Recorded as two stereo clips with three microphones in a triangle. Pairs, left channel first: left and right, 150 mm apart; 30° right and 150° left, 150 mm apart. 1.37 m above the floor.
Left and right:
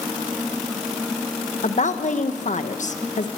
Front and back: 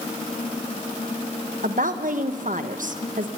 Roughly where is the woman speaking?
Behind left.